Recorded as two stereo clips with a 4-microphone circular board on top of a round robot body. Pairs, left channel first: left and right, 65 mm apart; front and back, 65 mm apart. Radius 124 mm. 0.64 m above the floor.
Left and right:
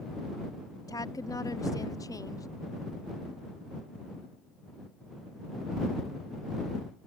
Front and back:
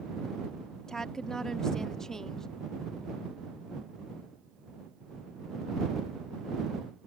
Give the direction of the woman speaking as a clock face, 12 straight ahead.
9 o'clock.